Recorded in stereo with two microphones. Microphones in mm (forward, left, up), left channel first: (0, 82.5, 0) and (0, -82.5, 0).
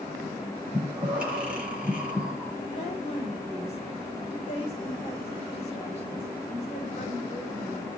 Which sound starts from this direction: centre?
Breathing, at 0.7 s.